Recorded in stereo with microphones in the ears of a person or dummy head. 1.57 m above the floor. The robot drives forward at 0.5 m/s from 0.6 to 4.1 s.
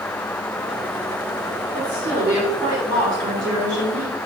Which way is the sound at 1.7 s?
20° right (ahead or behind).